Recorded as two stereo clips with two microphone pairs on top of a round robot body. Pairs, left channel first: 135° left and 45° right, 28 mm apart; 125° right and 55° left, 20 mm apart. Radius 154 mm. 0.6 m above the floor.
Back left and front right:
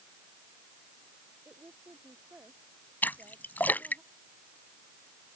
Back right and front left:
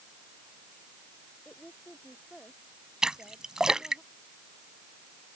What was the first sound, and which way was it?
A woman speaking, 75° right.